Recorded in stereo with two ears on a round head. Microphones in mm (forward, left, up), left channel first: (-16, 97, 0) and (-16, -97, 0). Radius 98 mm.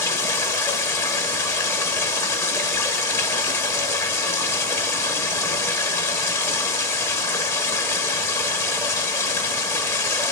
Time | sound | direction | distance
0.0 | running water | 10° left (ahead or behind) | 1.1 m